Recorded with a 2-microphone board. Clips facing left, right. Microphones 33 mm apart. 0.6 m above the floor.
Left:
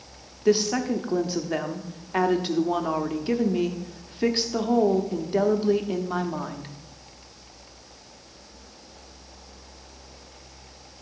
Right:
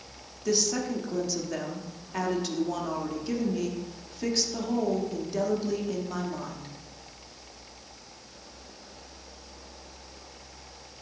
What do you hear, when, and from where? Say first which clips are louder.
0.5 s a woman speaking: left 6 dB; 35° left (ahead or behind), 0.7 m